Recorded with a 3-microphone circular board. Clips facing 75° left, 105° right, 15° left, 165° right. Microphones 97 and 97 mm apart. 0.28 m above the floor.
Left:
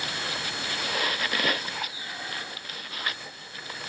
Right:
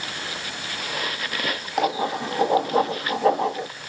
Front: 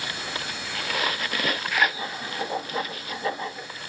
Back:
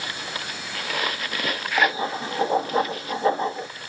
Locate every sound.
1.8 s writing: 105° right